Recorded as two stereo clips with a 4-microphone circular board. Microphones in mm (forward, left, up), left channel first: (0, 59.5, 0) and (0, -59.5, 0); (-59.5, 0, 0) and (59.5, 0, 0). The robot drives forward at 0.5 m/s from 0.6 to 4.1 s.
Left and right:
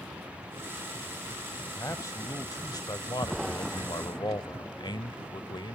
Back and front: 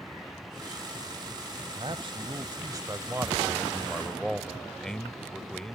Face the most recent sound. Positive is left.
turn(degrees=95)